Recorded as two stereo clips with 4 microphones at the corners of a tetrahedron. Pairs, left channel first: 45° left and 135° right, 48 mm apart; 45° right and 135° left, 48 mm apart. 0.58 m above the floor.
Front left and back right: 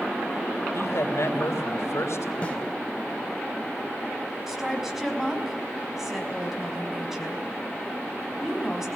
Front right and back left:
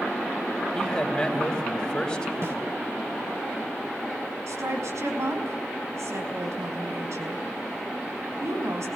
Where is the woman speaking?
140° left, 5 m.